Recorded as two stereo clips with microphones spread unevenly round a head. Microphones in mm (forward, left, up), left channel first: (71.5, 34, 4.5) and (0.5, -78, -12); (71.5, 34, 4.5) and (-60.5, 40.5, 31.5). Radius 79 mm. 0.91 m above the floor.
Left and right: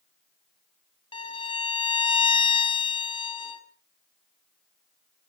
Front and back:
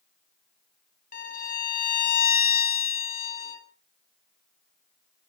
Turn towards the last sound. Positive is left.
turn(degrees=5)